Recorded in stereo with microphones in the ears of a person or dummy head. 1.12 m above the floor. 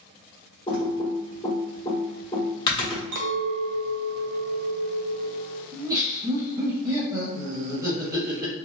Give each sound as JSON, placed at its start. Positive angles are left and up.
{"t": 0.7, "sound": "typing on a keyboard", "side_deg": 20, "distance_m": 1.3}
{"t": 3.1, "sound": "a clink", "side_deg": -70, "distance_m": 0.6}
{"t": 5.7, "sound": "laughter", "side_deg": -10, "distance_m": 1.1}